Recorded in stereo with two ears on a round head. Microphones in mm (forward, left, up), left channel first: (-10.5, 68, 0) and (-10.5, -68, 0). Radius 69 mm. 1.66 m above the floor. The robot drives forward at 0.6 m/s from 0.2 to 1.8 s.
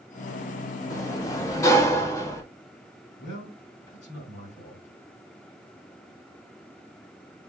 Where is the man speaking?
55° left (ahead or behind), 4 m.